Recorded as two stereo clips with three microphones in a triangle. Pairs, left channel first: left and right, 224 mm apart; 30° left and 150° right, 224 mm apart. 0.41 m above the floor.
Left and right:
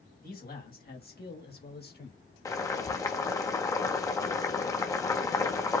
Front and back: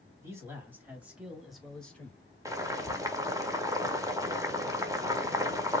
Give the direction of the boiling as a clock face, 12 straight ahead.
7 o'clock.